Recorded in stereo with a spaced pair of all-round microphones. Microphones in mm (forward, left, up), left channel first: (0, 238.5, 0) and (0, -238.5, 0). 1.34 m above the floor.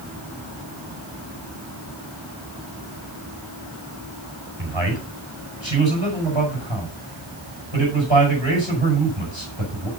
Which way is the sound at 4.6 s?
70° right (ahead or behind).